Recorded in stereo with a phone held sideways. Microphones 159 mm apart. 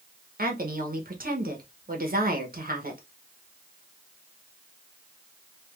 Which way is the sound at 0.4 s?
65° right (ahead or behind).